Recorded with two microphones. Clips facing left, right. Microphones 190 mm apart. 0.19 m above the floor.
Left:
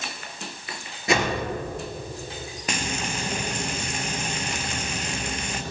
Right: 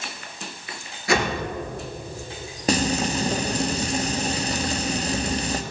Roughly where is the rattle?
No rattle in this recording.